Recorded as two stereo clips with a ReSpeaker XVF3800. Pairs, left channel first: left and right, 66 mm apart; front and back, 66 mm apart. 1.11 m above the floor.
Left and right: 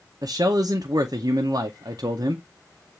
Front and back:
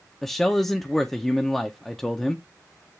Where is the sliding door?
I don't hear a sliding door.